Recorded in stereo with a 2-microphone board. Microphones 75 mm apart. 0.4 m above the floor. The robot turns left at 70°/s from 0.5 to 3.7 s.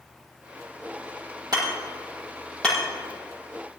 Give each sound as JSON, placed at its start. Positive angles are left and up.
{"t": 1.5, "sound": "hammering", "side_deg": -65, "distance_m": 7.0}